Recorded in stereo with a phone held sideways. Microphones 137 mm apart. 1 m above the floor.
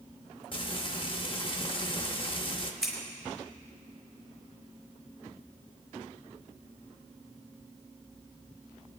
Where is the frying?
40° left (ahead or behind), 0.9 m.